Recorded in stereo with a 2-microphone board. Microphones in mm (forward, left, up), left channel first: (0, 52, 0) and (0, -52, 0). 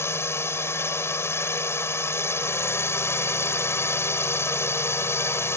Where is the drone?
25° left (ahead or behind).